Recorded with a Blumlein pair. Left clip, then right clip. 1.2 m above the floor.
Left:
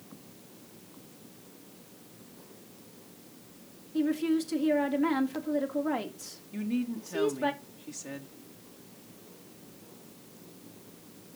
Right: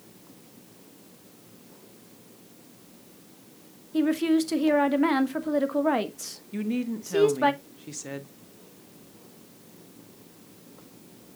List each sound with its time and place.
3.9 s a woman speaking: 30° right, 1.4 m
6.5 s a woman speaking: 15° right, 1.2 m